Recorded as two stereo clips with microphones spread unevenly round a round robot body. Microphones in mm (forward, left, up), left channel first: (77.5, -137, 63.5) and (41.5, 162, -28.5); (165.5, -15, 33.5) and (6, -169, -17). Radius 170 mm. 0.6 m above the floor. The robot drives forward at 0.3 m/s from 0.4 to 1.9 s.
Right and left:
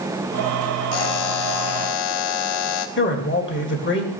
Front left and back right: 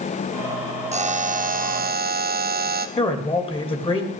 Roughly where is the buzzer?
Right.